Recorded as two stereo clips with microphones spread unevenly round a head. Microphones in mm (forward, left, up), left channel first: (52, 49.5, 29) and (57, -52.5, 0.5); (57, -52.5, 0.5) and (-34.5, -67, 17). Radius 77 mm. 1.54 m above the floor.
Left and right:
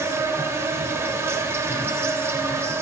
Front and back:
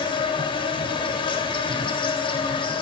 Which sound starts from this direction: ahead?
An insect, at 0.0 s.